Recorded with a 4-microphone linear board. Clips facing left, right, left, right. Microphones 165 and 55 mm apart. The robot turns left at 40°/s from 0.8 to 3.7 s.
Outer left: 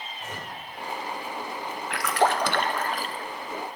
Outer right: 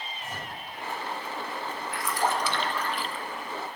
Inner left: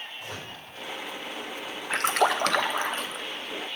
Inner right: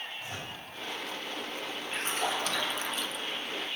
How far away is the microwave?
About 4.5 m.